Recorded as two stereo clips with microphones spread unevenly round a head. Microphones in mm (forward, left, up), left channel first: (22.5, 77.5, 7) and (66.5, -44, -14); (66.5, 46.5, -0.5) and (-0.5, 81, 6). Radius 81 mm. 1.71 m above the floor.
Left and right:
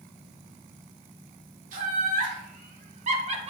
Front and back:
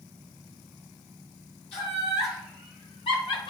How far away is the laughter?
About 2.5 m.